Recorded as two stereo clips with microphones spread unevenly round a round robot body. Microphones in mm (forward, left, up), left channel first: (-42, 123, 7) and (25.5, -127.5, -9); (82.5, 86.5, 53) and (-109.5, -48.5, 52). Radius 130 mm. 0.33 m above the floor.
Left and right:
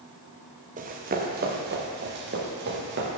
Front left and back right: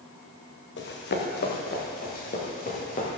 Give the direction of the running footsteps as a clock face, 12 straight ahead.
12 o'clock.